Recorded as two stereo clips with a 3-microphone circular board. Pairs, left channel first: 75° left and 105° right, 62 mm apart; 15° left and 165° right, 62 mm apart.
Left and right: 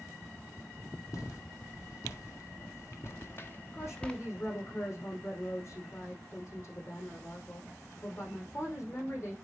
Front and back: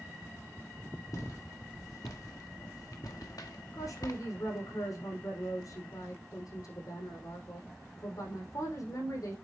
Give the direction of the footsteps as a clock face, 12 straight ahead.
11 o'clock.